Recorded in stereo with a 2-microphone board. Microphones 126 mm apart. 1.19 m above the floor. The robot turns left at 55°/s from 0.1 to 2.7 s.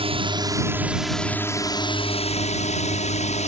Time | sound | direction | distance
0.0 | a drone | 50° right (ahead or behind) | ?